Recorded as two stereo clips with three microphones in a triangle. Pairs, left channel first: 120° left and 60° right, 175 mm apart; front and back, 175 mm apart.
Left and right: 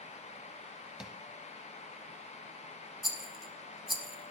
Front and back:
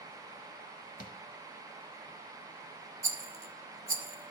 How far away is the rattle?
About 0.8 m.